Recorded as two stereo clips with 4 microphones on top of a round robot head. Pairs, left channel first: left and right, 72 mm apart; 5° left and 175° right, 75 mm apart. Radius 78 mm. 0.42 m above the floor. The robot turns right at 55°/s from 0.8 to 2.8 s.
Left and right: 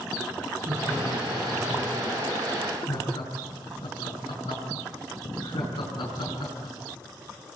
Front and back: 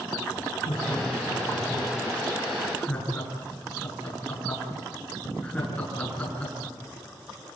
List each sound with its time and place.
0.7 s laughter: 35° right, 7 m; by 6.8 s 75° left, 7 m